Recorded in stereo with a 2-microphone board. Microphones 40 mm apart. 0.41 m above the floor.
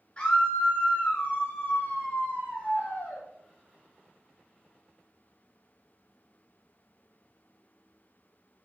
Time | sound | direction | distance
0.2 | a scream | 35° left (ahead or behind) | 5.5 m